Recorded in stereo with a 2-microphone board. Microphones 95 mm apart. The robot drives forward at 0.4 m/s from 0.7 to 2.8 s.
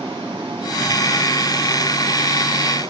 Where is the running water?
85° right, 2.5 m; by 2.9 s 70° right (ahead or behind), 2.5 m.